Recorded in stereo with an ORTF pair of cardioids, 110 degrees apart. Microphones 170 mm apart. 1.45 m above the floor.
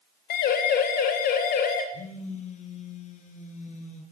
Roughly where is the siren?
Ahead left.